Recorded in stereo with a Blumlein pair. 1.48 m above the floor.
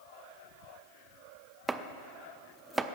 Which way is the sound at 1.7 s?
10° right.